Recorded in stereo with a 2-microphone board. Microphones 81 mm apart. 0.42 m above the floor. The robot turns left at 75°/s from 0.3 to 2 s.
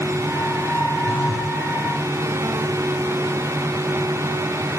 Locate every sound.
1.1 s a phone buzzing: 160° left, 1.3 m; by 1.6 s 120° left, 1.3 m